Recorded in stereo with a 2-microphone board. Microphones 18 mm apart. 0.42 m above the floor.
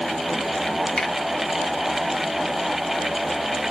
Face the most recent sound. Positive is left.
turn(degrees=35)  # may be behind; listen again after turning